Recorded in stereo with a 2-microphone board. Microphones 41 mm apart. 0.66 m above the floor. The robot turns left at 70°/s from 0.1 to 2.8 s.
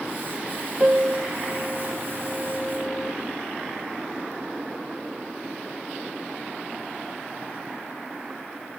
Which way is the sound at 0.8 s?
5° right (ahead or behind).